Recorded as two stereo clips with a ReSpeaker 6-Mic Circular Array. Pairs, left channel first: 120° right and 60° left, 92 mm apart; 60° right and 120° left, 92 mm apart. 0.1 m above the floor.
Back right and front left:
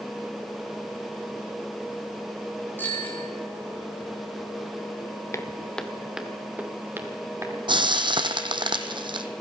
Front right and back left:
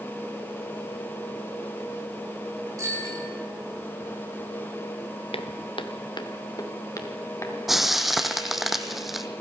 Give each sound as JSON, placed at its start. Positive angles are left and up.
{"t": 2.8, "sound": "a bicycle bell", "azimuth_deg": 170, "distance_m": 9.5}
{"t": 5.3, "sound": "footsteps", "azimuth_deg": -60, "distance_m": 1.3}
{"t": 7.7, "sound": "frying", "azimuth_deg": 35, "distance_m": 1.1}